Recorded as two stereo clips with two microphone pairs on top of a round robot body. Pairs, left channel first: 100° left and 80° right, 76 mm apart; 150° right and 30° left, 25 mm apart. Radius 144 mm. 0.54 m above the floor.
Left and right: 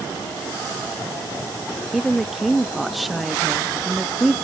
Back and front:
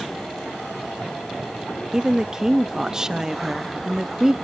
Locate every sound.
1.9 s a woman speaking: 30° left, 0.8 m